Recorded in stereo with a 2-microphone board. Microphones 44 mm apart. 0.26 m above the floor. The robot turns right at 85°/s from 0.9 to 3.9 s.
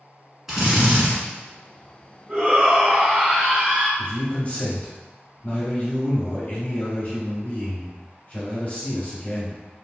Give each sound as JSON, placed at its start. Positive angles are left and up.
{"t": 0.5, "sound": "a drill", "side_deg": -10, "distance_m": 1.4}
{"t": 2.3, "sound": "a shout", "side_deg": -20, "distance_m": 1.5}
{"t": 4.0, "sound": "a man speaking", "side_deg": 35, "distance_m": 1.1}